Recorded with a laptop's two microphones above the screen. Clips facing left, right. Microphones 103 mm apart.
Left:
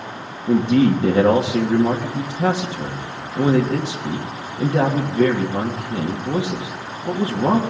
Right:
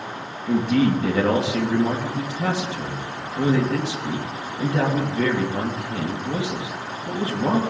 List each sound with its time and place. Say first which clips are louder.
0.5 s a man speaking: left 4 dB; 30° left (ahead or behind), 1.3 m